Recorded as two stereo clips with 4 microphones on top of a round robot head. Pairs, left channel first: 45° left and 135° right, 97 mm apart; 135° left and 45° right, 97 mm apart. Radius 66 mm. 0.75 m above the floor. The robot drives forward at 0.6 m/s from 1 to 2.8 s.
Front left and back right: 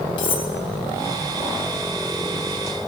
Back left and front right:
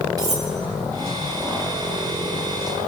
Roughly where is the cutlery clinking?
Ahead.